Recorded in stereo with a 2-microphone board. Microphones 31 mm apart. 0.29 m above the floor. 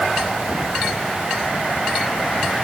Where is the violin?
I don't hear a violin.